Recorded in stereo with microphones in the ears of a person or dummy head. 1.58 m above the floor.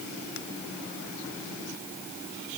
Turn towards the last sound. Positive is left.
No sound to turn to.